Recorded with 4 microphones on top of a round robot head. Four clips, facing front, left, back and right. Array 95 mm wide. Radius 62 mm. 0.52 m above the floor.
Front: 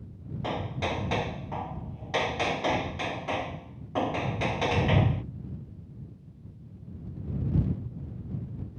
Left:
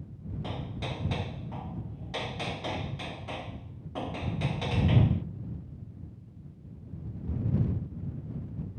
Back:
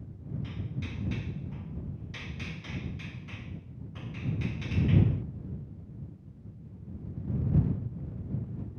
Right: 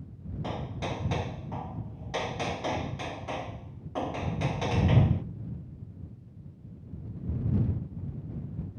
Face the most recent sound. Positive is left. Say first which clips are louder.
# right 4 dB, front 9 dB
turn(degrees=-15)